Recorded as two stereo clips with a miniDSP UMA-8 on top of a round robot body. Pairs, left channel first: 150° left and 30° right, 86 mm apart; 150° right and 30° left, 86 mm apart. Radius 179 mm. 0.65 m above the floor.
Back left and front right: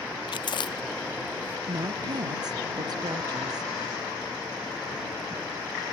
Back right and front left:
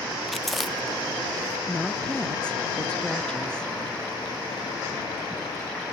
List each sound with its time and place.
0.3 s chewing: 120° left
1.7 s a woman speaking: 70° right